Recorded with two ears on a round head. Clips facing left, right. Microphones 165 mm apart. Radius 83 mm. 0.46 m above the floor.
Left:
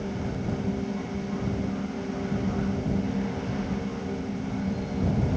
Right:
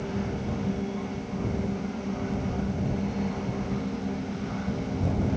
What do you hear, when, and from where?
Only background noise.